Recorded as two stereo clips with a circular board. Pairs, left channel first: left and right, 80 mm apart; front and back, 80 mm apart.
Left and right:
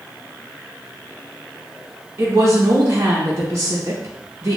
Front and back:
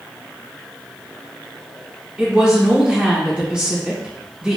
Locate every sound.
2.2 s a woman speaking: 110° right, 0.8 m